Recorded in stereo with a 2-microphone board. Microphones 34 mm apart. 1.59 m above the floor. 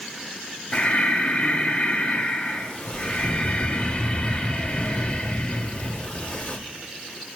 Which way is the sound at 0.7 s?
30° left (ahead or behind).